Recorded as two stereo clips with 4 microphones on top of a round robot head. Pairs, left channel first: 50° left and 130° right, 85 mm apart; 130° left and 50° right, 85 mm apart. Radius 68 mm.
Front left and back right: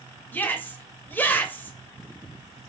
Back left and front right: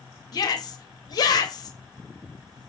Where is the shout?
115° left, 0.9 m.